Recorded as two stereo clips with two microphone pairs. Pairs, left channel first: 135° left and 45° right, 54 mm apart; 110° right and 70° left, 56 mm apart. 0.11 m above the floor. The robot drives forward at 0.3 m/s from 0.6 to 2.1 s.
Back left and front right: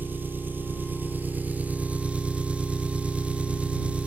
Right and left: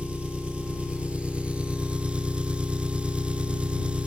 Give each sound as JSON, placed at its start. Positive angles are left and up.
{"t": 0.0, "sound": "an engine running", "azimuth_deg": 5, "distance_m": 0.8}